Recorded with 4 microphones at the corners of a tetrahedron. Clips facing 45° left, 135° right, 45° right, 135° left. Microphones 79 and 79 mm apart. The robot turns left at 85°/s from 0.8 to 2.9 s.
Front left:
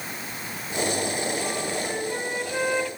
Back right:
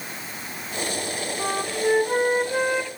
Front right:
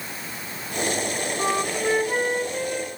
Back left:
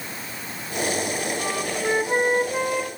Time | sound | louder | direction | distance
1.4 | a flute | back right 4 dB, front right 2 dB | 100° right | 0.7 m